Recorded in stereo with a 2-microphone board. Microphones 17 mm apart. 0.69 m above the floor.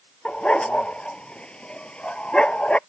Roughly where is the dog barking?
Left.